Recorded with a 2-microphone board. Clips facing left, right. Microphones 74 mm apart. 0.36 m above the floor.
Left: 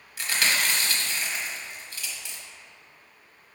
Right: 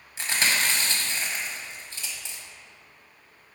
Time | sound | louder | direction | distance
0.2 | chewing | even | 30° right (ahead or behind) | 1.3 m